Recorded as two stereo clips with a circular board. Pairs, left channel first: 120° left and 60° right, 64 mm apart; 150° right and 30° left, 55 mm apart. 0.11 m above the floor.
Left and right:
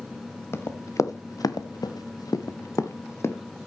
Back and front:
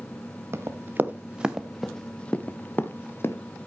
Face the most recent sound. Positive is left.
turn(degrees=170)